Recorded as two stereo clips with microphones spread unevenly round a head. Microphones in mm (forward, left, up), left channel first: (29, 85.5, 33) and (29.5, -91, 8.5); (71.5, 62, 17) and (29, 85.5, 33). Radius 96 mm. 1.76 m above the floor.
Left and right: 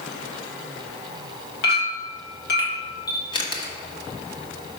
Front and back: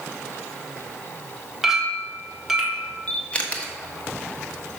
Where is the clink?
75° left, 1.8 m.